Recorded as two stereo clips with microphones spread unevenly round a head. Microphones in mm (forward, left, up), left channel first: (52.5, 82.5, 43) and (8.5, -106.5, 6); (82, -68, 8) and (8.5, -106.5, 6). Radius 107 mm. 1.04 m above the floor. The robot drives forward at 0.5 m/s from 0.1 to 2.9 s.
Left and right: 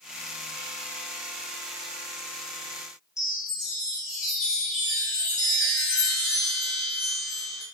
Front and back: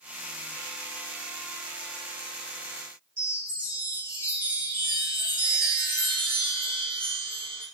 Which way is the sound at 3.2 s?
155° left.